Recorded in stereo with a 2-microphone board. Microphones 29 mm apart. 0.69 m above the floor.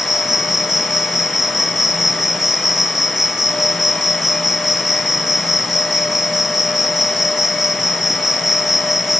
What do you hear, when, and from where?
0.0 s an insect: 10° right (ahead or behind)